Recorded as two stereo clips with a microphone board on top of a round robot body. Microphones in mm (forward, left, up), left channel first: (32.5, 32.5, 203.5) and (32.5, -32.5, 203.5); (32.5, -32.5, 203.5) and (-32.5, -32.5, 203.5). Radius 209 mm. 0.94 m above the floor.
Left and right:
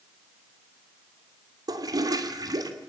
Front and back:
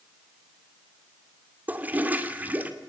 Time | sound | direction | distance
1.7 | a toilet flushing | 115° right | 2.5 m